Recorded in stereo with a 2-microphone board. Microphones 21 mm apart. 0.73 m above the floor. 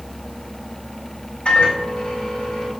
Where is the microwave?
55° left (ahead or behind), 2 m.